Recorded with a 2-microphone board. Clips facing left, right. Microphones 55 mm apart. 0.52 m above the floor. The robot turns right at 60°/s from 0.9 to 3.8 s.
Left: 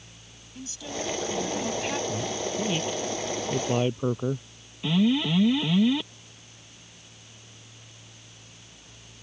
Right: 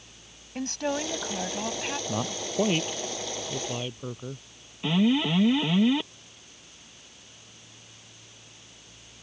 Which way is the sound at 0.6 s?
65° right.